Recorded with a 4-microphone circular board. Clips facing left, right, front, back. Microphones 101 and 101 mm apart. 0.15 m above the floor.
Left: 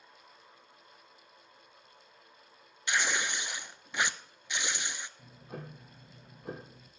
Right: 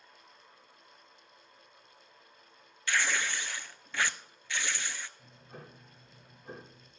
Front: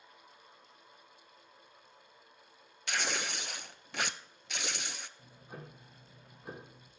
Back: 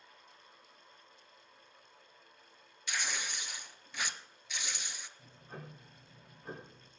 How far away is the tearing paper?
About 0.6 m.